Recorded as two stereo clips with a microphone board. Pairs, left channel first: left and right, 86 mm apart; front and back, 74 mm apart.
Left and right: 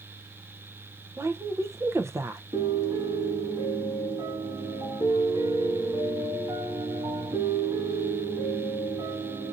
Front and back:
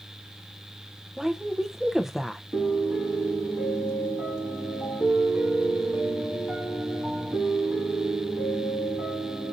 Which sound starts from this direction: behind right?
A piano, at 2.5 s.